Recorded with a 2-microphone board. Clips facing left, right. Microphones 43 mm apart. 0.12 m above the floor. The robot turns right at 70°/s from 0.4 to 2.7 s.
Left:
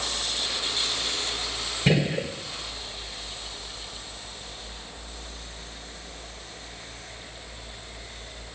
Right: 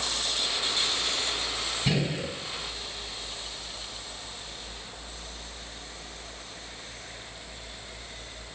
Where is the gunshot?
70° left, 1.7 m; by 2.3 s 105° left, 1.7 m.